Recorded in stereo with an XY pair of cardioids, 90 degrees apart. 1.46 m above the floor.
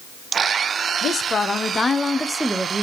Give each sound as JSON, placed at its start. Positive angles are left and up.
{"t": 1.0, "sound": "a woman speaking", "azimuth_deg": 60, "distance_m": 0.8}